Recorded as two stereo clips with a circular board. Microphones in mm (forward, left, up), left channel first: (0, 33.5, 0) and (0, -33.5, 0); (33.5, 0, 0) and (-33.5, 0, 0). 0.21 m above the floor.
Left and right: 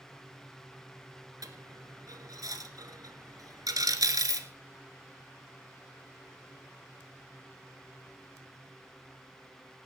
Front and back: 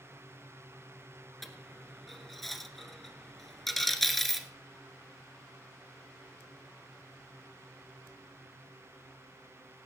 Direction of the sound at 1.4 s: 85° right.